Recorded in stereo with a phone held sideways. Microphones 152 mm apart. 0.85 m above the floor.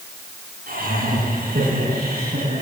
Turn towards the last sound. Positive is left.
turn(degrees=-85)